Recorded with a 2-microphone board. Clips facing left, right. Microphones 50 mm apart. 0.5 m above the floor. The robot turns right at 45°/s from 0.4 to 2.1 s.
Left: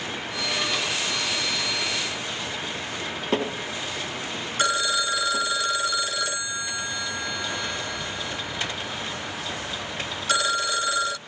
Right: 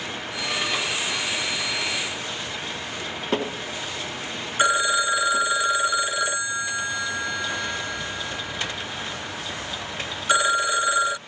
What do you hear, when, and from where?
4.6 s a phone ringing: 20° right (ahead or behind)